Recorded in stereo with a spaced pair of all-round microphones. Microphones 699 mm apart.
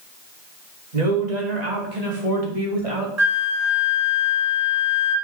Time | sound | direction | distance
0.9 | a woman speaking | 75° right (ahead or behind) | 3 m
3.2 | a flute | 20° right (ahead or behind) | 1.3 m